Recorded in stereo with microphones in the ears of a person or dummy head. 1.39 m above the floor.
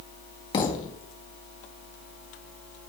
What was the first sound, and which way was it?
A thud, 25° left (ahead or behind).